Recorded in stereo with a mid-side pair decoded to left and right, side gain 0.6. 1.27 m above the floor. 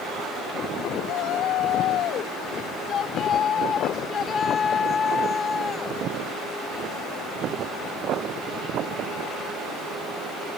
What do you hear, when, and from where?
1.1 s a shout: 65° left; by 6.0 s 25° left